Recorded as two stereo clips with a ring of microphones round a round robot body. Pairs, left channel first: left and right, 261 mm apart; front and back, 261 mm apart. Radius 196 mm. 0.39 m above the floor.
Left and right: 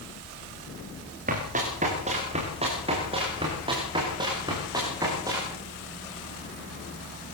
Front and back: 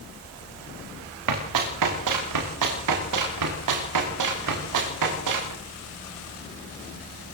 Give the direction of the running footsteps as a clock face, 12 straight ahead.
5 o'clock.